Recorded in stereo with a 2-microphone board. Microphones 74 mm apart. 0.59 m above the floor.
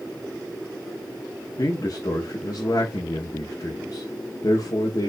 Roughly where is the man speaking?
Left.